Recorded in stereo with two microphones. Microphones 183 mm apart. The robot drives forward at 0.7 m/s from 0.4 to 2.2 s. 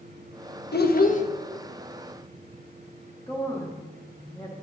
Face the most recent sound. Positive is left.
turn(degrees=15)  # may be behind; listen again after turning